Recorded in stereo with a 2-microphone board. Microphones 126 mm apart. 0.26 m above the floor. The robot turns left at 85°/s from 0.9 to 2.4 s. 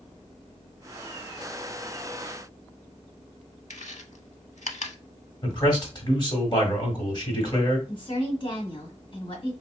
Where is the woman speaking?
40° left (ahead or behind), 1.7 m.